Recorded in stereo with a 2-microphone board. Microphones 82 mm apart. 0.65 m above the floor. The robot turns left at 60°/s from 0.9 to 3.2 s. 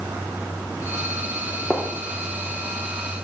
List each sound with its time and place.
1.7 s a gunshot: centre (ahead or behind), 0.9 m; by 1.9 s 10° right (ahead or behind), 0.9 m